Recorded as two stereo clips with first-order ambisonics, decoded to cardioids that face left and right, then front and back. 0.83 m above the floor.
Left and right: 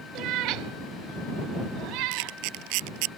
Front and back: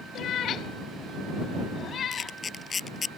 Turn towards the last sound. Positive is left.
turn(degrees=-75)